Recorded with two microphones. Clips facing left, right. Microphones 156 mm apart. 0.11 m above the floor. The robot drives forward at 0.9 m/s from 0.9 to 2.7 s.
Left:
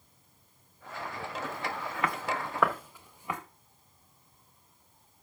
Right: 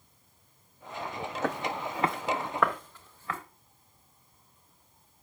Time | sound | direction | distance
1.4 | footsteps | 75° right (ahead or behind) | 1.2 m